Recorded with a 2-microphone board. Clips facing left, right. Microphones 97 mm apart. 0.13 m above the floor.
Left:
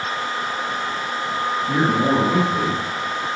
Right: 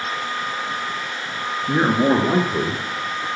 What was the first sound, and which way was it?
A man speaking, 25° right (ahead or behind).